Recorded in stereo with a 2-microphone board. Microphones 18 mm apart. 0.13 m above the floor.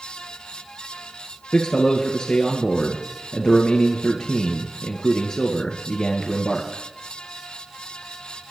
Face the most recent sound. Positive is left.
turn(degrees=55)  # may be behind; listen again after turning